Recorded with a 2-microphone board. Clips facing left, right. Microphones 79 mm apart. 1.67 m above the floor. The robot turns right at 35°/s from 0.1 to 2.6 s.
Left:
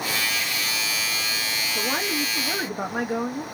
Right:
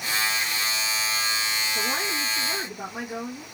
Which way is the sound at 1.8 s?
30° left (ahead or behind).